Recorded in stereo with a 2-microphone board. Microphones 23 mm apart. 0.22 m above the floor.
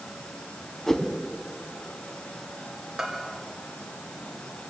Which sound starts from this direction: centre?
A bell, at 3.0 s.